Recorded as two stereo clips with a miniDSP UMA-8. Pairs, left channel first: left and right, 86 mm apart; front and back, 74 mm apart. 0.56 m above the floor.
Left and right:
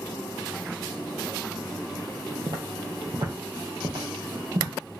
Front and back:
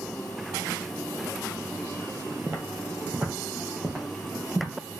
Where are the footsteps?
120° right, 1.0 m; by 4.7 s 85° right, 2 m.